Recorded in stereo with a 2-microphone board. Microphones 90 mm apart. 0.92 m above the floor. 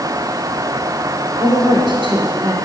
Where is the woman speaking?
60° right (ahead or behind), 2.5 m.